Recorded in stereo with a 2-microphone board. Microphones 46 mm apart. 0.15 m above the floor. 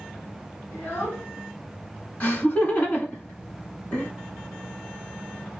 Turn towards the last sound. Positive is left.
turn(degrees=35)  # may be behind; listen again after turning